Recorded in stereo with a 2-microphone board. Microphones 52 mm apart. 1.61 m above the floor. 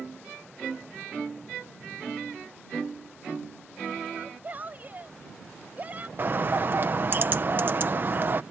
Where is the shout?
35° right (ahead or behind).